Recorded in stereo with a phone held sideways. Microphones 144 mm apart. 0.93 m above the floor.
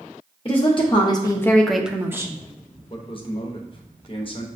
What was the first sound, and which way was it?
A woman speaking, 40° left (ahead or behind).